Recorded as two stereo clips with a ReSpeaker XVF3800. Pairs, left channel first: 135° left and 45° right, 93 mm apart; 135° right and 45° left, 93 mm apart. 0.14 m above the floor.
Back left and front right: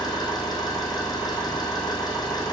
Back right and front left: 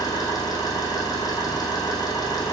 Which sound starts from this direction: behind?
An engine running, at 0.0 s.